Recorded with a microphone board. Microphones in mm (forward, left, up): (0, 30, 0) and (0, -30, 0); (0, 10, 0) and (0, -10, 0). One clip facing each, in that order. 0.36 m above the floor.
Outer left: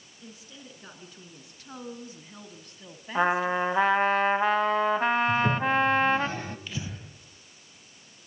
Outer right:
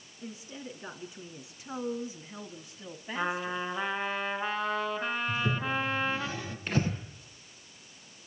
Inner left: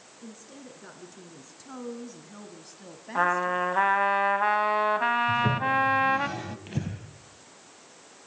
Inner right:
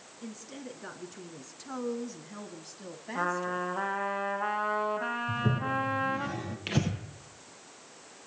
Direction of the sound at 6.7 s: 50° right (ahead or behind).